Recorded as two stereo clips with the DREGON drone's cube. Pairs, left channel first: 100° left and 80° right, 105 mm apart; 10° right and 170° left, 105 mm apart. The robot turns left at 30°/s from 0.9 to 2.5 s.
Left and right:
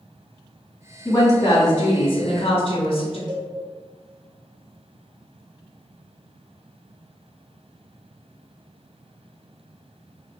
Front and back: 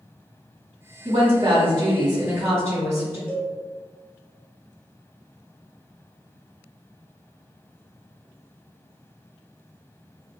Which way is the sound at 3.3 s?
70° right.